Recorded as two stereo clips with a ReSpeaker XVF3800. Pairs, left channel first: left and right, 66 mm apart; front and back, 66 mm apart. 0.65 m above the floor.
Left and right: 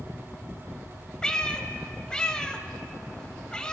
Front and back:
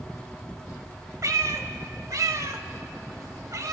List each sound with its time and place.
1.2 s a cat meowing: 165° left, 0.7 m